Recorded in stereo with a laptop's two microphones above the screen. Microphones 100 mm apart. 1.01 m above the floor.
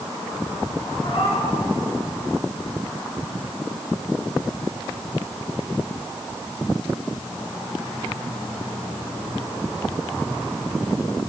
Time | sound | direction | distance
1.0 | a cat meowing | 65° left (ahead or behind) | 5.5 m